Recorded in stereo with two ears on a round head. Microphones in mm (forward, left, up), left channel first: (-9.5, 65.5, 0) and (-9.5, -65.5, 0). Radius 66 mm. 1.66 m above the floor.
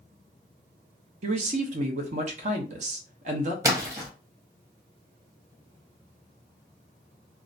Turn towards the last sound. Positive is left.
turn(degrees=-20)  # may be behind; listen again after turning